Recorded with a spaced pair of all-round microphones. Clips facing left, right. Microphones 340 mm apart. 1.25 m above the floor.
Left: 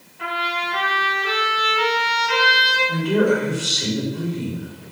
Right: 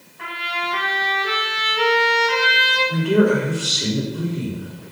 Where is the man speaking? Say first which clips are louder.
Right 2 dB; 20° right (ahead or behind), 4 m.